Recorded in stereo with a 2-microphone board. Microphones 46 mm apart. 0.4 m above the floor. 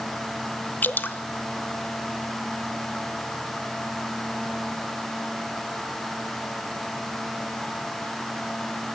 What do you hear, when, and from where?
0.8 s dripping: 45° left (ahead or behind), 0.8 m